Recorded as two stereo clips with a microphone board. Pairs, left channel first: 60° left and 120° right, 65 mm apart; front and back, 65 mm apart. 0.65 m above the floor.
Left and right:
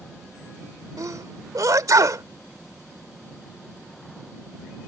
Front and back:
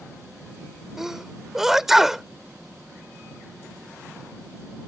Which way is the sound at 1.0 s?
95° right.